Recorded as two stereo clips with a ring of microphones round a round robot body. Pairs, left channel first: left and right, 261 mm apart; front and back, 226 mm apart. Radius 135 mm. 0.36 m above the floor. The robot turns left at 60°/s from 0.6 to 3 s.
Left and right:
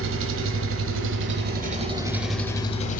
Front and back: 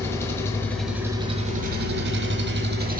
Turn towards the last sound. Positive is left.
turn(degrees=140)